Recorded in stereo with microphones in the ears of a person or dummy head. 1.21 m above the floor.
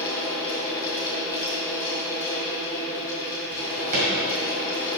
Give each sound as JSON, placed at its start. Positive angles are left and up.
{"t": 0.0, "sound": "a fan", "side_deg": 20, "distance_m": 1.8}
{"t": 3.5, "sound": "a drawer", "side_deg": -50, "distance_m": 1.9}